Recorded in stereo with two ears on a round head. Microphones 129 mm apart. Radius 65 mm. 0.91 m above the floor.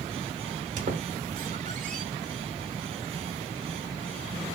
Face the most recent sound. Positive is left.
turn(degrees=-55)  # may be behind; listen again after turning